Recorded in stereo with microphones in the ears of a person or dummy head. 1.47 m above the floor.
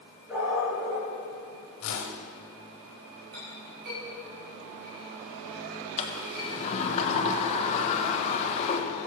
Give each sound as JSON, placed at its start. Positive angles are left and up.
{"t": 0.3, "sound": "a dog barking", "side_deg": -10, "distance_m": 6.0}
{"t": 1.8, "sound": "a whoosh", "side_deg": 65, "distance_m": 2.5}
{"t": 3.3, "sound": "a clink", "side_deg": -55, "distance_m": 6.0}
{"t": 6.0, "sound": "a sliding door", "side_deg": 35, "distance_m": 1.6}